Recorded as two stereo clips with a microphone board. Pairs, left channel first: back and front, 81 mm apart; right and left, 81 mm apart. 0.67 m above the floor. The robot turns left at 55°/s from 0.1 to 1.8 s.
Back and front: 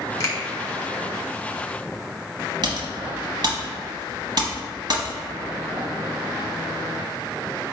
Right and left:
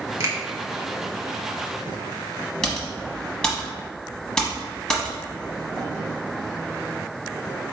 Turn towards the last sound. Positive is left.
turn(degrees=-10)